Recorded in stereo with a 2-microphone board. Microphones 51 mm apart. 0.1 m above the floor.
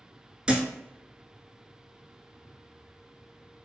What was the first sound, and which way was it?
A thud, 20° right (ahead or behind).